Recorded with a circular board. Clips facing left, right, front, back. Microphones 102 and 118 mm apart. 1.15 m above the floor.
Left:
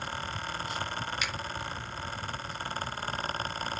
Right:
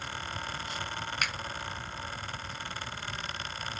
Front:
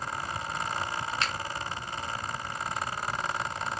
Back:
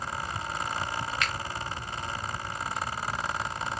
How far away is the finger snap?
About 0.5 m.